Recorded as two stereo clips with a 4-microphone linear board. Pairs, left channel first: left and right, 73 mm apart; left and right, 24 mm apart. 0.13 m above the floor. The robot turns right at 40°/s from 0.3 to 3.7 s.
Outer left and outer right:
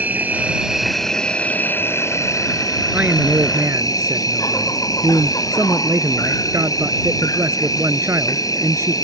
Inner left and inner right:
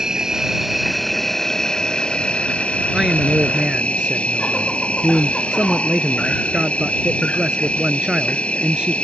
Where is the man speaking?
155° right; by 8.9 s 125° right.